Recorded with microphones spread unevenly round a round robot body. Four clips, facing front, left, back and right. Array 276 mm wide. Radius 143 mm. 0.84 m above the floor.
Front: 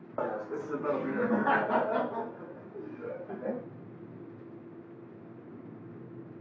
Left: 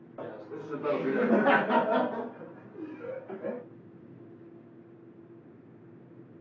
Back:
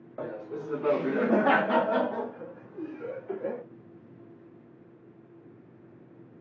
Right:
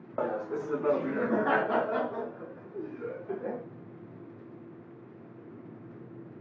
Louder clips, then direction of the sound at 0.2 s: Right 8 dB, front 2 dB; 85° right.